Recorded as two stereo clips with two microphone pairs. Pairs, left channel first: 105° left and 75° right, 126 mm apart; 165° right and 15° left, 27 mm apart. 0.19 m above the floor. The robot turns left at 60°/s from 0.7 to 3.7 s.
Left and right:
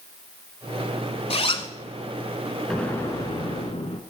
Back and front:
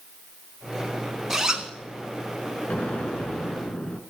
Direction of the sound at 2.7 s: 170° right.